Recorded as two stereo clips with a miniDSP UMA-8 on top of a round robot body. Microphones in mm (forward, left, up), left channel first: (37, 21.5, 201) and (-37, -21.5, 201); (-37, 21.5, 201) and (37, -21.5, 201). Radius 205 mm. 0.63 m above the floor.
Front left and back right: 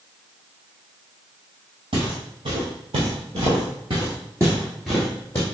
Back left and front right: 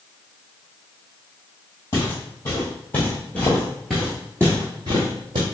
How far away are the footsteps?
About 1.7 m.